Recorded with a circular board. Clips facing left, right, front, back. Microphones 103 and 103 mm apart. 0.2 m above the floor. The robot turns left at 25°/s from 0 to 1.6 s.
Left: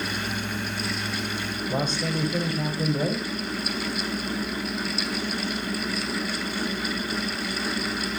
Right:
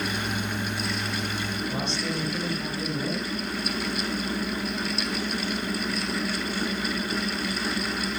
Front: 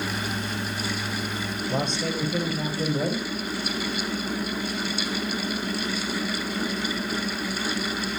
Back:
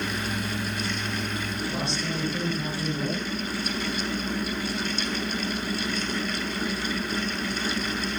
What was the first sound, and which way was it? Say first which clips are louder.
A man speaking: left 6 dB, front 6 dB; 40° left.